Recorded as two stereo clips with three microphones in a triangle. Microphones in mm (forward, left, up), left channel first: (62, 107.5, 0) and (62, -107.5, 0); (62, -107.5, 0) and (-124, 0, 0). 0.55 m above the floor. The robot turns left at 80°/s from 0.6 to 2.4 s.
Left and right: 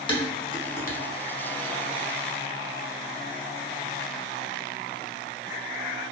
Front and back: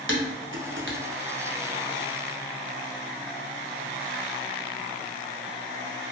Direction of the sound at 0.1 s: 150° left.